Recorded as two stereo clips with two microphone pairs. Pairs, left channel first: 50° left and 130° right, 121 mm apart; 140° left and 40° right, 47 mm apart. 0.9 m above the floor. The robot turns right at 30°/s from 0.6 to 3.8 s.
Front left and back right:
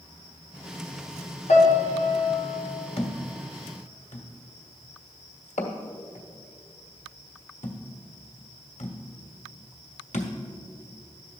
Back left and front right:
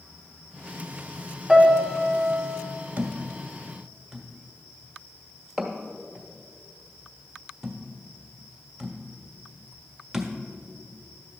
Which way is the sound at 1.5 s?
45° left.